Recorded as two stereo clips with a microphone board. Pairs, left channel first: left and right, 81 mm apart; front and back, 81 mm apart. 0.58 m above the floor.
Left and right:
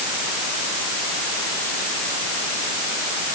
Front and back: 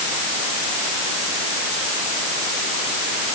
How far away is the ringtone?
No ringtone in this recording.